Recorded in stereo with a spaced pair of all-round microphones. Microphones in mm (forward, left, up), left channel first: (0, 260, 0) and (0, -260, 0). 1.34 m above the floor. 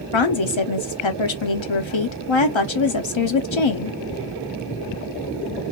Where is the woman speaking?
65° left (ahead or behind), 0.8 m.